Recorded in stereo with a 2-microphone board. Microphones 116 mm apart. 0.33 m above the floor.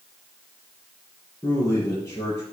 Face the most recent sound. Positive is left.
turn(degrees=30)  # may be behind; listen again after turning